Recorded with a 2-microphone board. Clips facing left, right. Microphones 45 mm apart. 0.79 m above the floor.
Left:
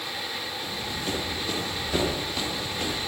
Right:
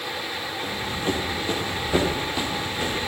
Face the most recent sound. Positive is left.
turn(degrees=-5)  # may be behind; listen again after turning